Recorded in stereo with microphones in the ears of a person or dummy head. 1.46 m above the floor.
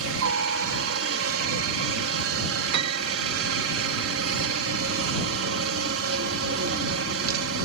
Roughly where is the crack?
No crack in this recording.